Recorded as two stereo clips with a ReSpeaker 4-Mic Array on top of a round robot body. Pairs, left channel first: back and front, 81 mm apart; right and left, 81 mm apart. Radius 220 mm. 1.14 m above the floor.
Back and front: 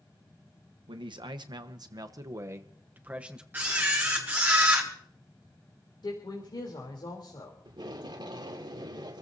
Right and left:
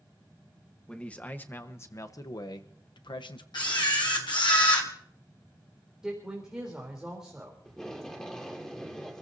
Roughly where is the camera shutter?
Right.